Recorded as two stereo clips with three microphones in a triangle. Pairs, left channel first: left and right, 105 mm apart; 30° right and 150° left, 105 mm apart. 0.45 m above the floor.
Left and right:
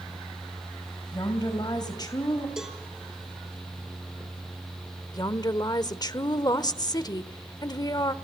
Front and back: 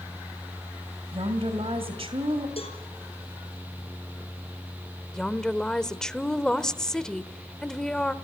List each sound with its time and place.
1.1 s a woman speaking: 135° left, 2 m
2.6 s a cowbell: 5° right, 5 m
5.1 s a woman speaking: 50° left, 1.1 m